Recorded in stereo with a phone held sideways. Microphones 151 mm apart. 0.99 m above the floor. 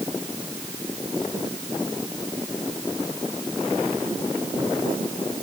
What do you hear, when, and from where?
Only background noise.